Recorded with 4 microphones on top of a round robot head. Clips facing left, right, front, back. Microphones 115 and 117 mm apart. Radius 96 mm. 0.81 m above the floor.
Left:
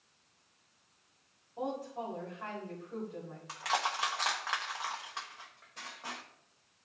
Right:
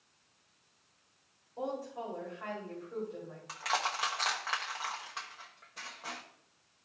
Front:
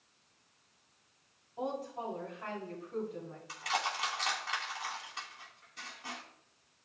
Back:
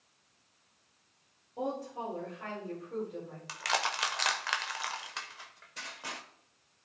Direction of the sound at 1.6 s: 170° right.